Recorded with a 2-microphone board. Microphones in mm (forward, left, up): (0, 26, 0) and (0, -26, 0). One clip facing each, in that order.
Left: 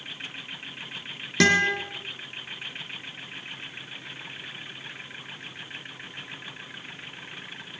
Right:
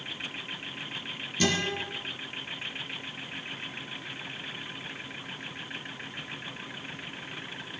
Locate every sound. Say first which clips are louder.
1.4 s a guitar: left 8 dB; 80° left, 2.5 m